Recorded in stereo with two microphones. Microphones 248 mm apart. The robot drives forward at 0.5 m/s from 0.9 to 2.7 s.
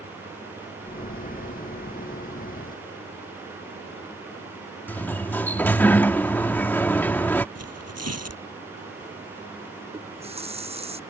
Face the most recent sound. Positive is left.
turn(degrees=-25)  # may be behind; listen again after turning